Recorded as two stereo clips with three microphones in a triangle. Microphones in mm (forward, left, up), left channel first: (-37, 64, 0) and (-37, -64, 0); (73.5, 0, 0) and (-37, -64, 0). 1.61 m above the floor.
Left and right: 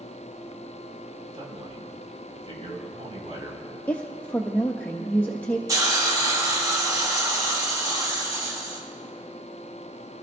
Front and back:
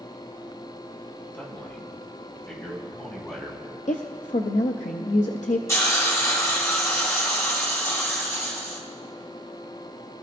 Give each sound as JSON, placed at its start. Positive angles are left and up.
{"t": 1.3, "sound": "a man speaking", "azimuth_deg": -45, "distance_m": 3.0}
{"t": 3.9, "sound": "a woman speaking", "azimuth_deg": 15, "distance_m": 0.6}
{"t": 5.7, "sound": "a hiss", "azimuth_deg": -35, "distance_m": 2.5}